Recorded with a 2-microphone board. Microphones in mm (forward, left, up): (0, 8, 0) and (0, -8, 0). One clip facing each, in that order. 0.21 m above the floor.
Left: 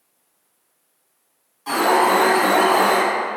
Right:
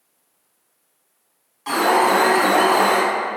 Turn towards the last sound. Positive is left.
turn(degrees=-30)  # may be behind; listen again after turning